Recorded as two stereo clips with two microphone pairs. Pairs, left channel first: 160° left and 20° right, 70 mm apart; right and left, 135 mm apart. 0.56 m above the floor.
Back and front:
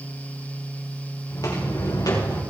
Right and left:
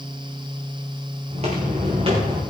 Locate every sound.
1.3 s footsteps: 125° left, 5 m; by 2.4 s 140° left, 5.5 m